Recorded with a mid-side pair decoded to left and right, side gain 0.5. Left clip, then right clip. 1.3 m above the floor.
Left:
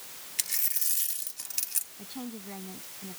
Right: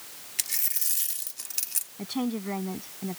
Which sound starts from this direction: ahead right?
A woman speaking, at 2.0 s.